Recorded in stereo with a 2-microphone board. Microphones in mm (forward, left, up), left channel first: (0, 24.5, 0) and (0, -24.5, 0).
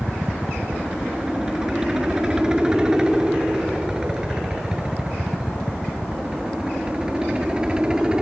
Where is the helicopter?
15° right (ahead or behind).